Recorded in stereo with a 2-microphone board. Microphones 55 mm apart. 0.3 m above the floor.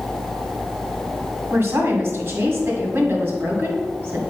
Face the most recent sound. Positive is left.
turn(degrees=-50)  # may be behind; listen again after turning